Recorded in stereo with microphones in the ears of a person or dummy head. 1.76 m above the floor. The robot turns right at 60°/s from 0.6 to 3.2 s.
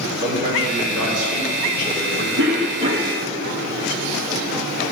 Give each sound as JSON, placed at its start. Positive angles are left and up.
{"t": 0.2, "sound": "a man speaking", "azimuth_deg": -120, "distance_m": 5.0}
{"t": 2.4, "sound": "a cough", "azimuth_deg": -60, "distance_m": 1.2}